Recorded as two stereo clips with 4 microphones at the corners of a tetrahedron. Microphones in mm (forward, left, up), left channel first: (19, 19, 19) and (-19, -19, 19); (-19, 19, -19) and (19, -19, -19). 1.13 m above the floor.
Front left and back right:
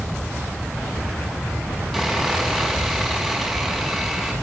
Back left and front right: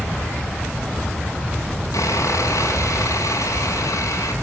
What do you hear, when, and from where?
1.9 s sawing: 135° left, 7.5 m